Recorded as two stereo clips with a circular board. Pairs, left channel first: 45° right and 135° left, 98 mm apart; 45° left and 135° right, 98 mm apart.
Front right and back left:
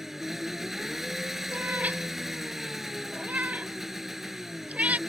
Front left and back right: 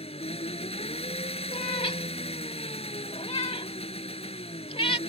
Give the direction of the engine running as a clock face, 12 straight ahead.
10 o'clock.